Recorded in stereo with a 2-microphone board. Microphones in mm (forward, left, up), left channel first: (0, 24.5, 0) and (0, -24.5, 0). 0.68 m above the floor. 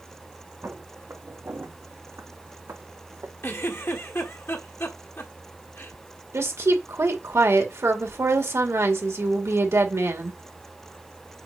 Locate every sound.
0.6 s footsteps: 55° right (ahead or behind), 3.5 m; by 3.3 s 70° right (ahead or behind), 2 m
3.4 s a giggle: 55° left (ahead or behind), 1.4 m
6.3 s a woman speaking: 65° right (ahead or behind), 2.0 m